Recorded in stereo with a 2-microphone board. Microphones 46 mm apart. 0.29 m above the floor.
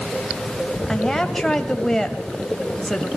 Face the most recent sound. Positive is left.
turn(degrees=10)  # may be behind; listen again after turning